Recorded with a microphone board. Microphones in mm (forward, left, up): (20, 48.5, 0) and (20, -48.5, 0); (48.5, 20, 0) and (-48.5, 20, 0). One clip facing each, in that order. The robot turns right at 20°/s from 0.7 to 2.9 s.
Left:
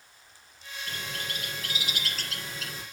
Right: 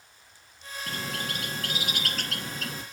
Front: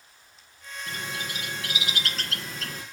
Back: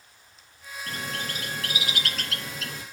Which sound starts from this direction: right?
A bird, at 0.9 s.